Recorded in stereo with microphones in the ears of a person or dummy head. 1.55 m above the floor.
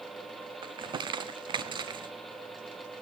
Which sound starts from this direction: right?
Crumpling, at 0.6 s.